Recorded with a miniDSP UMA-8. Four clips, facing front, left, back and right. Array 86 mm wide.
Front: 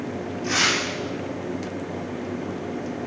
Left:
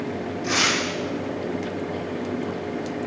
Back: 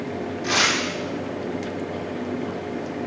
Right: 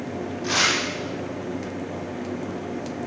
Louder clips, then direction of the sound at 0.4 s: Even, back 1 dB; 145° right.